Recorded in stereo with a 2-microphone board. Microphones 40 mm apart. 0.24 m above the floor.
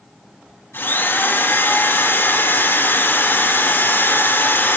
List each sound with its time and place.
0.7 s a drill: 70° left (ahead or behind), 3.5 m